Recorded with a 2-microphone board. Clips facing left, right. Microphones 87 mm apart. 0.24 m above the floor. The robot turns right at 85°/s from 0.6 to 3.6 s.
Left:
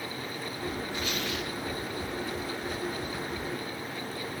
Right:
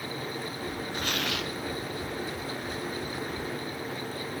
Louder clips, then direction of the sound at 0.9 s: Right 1 dB; 135° right.